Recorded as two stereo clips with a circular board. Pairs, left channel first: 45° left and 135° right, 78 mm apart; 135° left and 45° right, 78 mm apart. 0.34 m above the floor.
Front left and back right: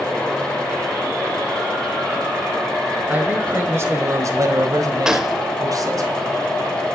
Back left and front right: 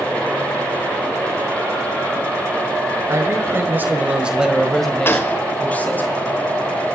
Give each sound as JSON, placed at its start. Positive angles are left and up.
{"t": 3.1, "sound": "a man speaking", "azimuth_deg": -75, "distance_m": 1.5}
{"t": 5.0, "sound": "a gunshot", "azimuth_deg": 150, "distance_m": 0.8}